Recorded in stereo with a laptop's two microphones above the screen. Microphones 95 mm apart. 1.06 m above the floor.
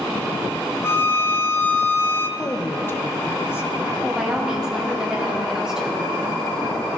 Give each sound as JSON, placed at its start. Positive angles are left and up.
{"t": 0.8, "sound": "a violin", "side_deg": 25, "distance_m": 0.7}
{"t": 2.4, "sound": "a woman speaking", "side_deg": 25, "distance_m": 0.8}
{"t": 4.0, "sound": "a woman speaking", "side_deg": -5, "distance_m": 1.6}